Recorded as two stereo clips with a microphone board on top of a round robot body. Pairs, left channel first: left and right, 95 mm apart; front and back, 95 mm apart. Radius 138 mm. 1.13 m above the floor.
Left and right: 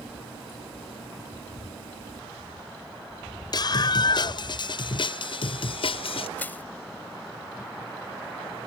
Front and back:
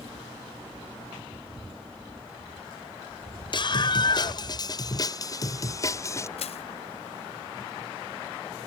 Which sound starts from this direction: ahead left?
A scream, at 3.5 s.